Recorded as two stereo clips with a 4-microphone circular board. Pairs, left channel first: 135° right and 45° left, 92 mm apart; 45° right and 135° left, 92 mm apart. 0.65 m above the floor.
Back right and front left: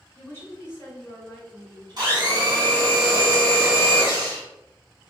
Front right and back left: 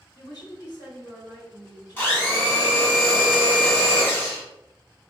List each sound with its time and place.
0.1 s a woman speaking: 75° right, 1.6 m
2.0 s a blender: 20° left, 1.2 m